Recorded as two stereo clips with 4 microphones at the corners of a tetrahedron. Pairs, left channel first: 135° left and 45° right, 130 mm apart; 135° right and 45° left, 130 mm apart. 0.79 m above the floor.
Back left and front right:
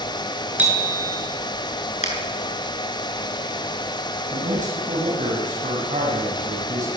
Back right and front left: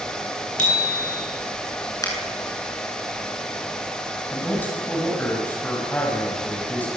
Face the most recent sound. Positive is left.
turn(degrees=-60)